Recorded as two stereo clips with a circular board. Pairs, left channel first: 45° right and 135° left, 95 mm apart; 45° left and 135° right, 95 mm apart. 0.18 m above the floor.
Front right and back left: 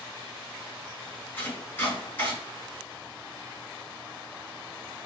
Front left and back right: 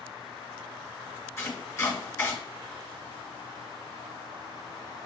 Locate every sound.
1.4 s chopping: 5° left, 1.8 m